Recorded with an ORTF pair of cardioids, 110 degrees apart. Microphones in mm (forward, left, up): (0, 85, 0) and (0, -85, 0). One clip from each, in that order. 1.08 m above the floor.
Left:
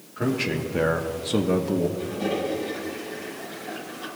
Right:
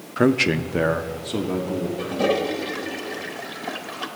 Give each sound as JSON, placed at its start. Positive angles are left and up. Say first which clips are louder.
{"t": 0.2, "sound": "a man speaking", "louder": "right 7 dB", "azimuth_deg": -55, "distance_m": 0.7}
{"t": 2.0, "sound": "a toilet flushing", "louder": "right 5 dB", "azimuth_deg": -70, "distance_m": 1.0}